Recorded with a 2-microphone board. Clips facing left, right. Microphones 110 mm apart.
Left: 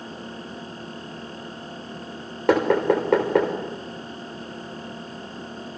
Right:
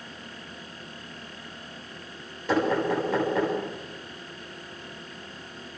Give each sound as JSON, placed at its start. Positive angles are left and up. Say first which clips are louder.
{"t": 2.5, "sound": "knocking", "louder": "left 5 dB", "side_deg": 75, "distance_m": 5.5}